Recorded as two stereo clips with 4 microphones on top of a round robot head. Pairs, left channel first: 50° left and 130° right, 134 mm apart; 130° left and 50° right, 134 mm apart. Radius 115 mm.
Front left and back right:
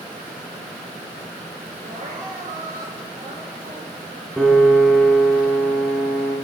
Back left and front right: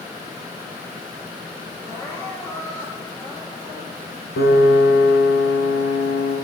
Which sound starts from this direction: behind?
Crying, at 1.8 s.